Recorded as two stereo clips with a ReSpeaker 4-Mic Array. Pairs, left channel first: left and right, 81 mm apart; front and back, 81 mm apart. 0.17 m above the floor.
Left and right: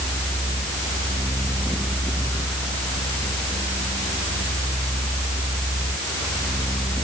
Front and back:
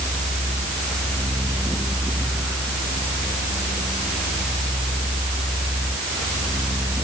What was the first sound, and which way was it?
Only background noise.